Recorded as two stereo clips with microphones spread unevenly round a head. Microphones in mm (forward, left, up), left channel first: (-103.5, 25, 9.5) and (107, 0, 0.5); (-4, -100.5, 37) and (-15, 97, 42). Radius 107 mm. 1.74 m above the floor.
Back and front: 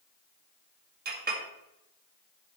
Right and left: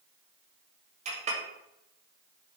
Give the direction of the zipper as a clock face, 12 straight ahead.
I don't hear a zipper.